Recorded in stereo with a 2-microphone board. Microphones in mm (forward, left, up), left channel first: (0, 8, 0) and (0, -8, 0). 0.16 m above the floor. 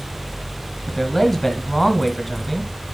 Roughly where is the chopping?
I don't hear chopping.